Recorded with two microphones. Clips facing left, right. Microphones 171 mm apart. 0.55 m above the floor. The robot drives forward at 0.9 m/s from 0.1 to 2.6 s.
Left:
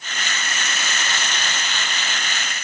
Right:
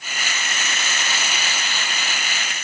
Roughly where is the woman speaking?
I don't hear a woman speaking.